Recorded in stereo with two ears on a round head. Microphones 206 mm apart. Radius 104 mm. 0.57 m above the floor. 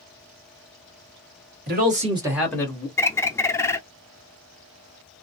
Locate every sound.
1.7 s a man speaking: 45° right (ahead or behind), 1.4 m; by 2.9 s 25° left (ahead or behind), 1.2 m
3.0 s a bird: 10° left (ahead or behind), 0.5 m